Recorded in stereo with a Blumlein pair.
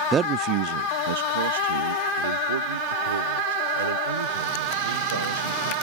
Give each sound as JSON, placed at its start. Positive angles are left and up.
{"t": 0.1, "sound": "a man speaking", "azimuth_deg": -20}